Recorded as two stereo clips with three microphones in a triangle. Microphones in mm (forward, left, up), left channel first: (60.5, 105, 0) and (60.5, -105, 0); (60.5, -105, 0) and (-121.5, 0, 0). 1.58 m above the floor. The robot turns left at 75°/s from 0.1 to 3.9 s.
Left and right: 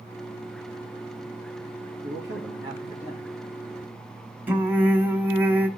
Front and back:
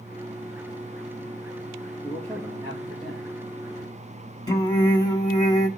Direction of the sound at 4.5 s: 30° right.